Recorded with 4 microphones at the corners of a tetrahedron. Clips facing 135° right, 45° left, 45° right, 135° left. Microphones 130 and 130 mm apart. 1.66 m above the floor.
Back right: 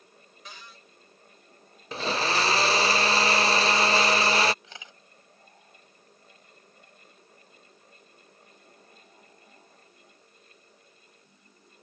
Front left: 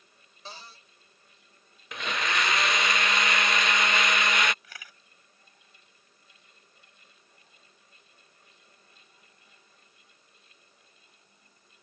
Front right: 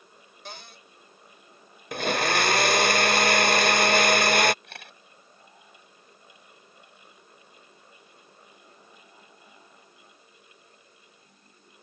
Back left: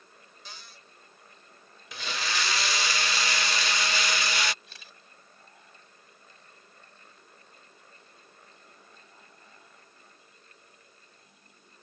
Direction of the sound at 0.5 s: 15° right.